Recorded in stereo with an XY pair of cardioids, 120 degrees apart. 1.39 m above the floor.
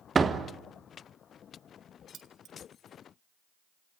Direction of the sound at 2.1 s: 55° right.